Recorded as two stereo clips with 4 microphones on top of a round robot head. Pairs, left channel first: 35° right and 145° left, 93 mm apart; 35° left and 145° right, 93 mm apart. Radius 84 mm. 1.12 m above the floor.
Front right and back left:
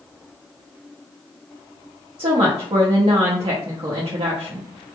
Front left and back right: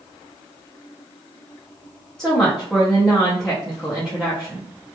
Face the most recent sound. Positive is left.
turn(degrees=120)